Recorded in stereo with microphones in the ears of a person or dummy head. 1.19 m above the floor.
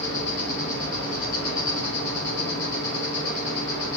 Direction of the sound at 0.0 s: 20° left (ahead or behind).